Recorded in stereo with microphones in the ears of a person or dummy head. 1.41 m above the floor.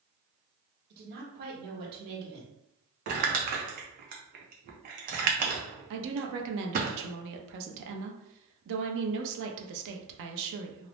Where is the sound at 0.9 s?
50° right (ahead or behind), 1.1 m.